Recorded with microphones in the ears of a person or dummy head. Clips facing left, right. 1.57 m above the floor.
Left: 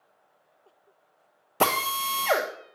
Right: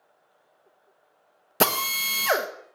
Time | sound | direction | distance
1.6 | a drill | 20° right (ahead or behind) | 1.0 m